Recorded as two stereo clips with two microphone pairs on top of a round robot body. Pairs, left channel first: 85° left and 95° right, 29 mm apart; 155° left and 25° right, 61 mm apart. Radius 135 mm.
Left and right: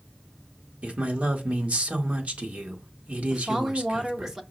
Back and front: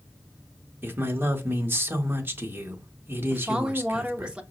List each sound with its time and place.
0.8 s a man speaking: 70° right, 1.4 m
3.3 s a woman speaking: 45° right, 1.0 m